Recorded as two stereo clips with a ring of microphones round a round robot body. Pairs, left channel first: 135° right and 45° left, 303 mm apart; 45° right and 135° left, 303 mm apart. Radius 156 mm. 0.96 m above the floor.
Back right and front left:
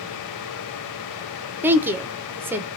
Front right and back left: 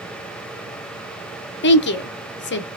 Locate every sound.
1.6 s a woman speaking: 35° right, 0.8 m